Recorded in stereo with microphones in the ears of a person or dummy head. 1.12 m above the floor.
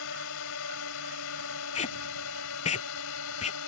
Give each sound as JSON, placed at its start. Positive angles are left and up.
{"t": 0.0, "sound": "a drone", "side_deg": 70}
{"t": 1.8, "sound": "tape being pulled", "side_deg": 30}